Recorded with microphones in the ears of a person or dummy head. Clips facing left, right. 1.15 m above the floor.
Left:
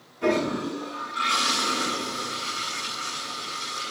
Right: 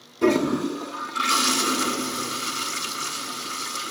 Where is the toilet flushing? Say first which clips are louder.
Right 4 dB; 55° right (ahead or behind), 1.3 m.